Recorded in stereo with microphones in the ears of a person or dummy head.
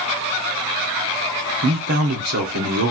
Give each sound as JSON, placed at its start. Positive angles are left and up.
{"t": 1.6, "sound": "a man speaking", "side_deg": -55, "distance_m": 1.1}